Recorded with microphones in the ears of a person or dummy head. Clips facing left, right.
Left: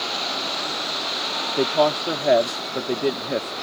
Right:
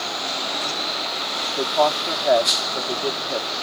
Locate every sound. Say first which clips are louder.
1.6 s a woman speaking: left 1 dB; 40° left (ahead or behind)